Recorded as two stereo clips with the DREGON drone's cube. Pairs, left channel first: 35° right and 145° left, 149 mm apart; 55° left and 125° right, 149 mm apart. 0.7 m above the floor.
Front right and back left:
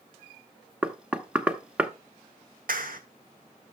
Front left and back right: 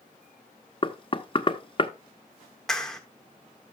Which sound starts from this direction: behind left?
A clap, at 2.7 s.